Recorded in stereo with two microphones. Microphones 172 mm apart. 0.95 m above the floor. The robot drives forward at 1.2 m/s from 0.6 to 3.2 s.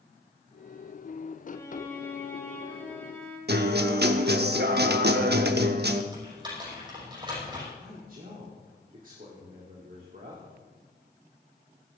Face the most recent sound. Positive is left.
turn(degrees=-50)  # may be behind; listen again after turning